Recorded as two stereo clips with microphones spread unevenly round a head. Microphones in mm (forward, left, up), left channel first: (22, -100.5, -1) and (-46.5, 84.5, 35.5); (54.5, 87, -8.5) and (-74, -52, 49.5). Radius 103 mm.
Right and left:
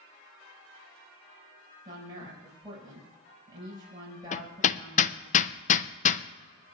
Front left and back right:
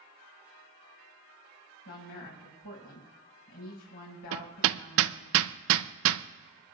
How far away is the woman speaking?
About 5 m.